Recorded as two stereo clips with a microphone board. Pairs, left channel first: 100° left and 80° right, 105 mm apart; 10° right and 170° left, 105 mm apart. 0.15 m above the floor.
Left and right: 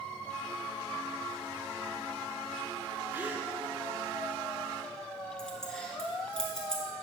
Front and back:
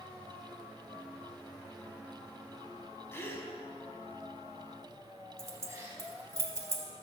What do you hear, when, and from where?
3.1 s a gasp: 40° right, 0.7 m
5.4 s keys jangling: 175° left, 0.9 m